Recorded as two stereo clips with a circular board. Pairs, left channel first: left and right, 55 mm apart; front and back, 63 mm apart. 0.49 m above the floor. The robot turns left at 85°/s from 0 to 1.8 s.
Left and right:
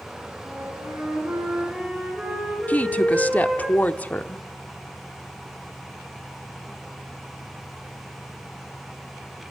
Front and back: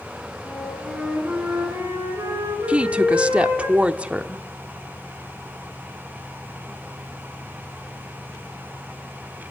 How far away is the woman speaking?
About 0.8 m.